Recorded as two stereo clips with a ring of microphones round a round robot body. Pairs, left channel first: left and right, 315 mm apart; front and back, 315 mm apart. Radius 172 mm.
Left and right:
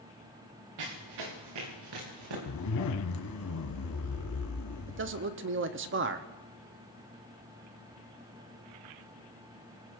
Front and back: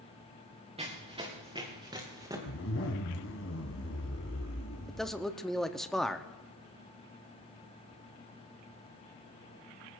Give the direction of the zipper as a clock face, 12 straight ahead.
10 o'clock.